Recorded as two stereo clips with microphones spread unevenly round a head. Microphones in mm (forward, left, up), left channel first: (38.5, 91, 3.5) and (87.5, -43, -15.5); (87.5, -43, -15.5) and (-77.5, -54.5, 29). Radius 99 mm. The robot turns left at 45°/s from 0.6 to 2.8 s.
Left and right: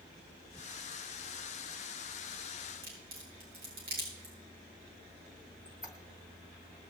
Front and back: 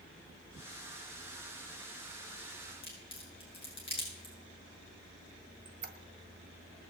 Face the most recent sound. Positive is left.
turn(degrees=-160)